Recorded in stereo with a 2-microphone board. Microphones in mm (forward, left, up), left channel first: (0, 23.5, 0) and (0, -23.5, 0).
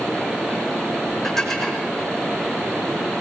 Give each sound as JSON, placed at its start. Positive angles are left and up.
{"t": 1.2, "sound": "dishes clattering", "side_deg": 10, "distance_m": 5.5}